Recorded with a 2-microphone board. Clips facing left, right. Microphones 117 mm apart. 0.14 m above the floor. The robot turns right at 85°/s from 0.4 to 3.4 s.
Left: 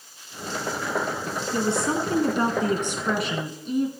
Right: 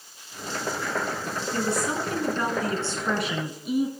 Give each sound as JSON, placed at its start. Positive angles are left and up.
{"t": 1.5, "sound": "a woman speaking", "azimuth_deg": 35, "distance_m": 1.3}